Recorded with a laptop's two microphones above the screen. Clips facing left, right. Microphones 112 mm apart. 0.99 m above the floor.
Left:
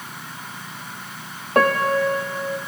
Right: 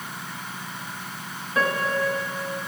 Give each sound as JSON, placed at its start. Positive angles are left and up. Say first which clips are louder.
{"t": 1.6, "sound": "a piano", "louder": "left 6 dB", "side_deg": 65, "distance_m": 1.1}